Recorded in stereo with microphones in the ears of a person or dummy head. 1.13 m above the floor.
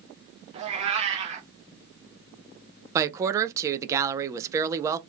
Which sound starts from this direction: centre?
A woman speaking, at 3.0 s.